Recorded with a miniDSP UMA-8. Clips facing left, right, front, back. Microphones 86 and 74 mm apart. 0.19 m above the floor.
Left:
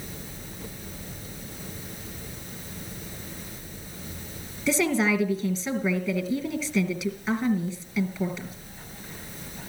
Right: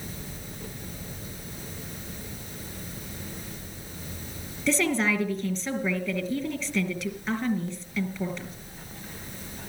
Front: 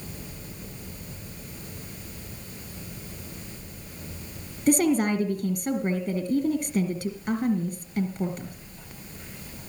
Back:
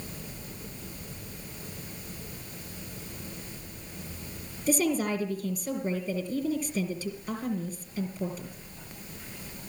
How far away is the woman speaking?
About 3 m.